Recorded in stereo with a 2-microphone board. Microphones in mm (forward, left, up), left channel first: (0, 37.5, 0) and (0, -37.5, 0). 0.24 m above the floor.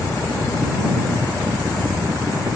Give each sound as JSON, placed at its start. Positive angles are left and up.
{"t": 0.0, "sound": "a helicopter", "side_deg": -55}